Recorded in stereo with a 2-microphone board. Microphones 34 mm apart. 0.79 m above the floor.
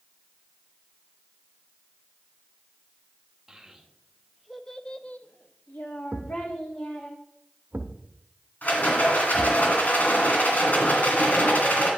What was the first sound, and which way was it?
A child speaking, 15° right (ahead or behind).